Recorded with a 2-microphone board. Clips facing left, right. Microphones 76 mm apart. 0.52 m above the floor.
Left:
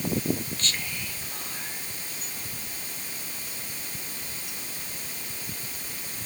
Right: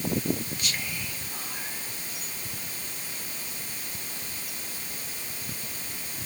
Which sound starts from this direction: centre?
Whispering, at 0.6 s.